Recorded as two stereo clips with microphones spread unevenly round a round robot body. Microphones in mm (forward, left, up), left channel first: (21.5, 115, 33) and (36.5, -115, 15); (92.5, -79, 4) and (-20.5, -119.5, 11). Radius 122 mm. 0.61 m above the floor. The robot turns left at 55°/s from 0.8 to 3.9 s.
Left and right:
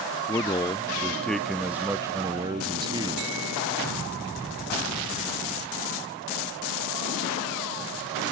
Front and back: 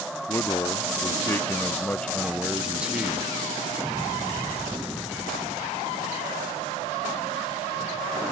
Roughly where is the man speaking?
Ahead left.